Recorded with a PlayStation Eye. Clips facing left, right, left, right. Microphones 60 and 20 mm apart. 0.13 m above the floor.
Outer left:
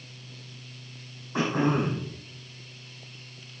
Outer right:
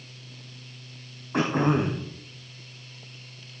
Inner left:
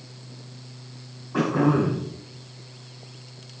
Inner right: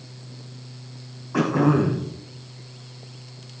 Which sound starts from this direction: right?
Throat clearing, at 1.3 s.